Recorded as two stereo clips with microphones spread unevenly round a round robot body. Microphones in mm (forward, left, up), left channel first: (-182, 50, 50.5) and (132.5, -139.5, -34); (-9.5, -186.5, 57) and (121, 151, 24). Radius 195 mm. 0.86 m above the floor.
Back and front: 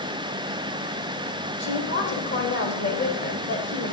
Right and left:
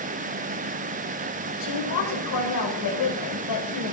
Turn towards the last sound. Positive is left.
turn(degrees=-150)